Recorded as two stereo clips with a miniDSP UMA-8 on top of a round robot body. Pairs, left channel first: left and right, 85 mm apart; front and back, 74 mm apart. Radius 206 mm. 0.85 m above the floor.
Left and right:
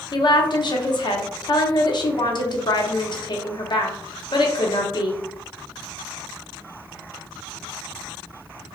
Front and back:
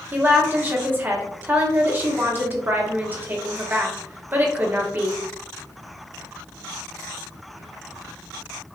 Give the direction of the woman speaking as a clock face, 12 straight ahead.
8 o'clock.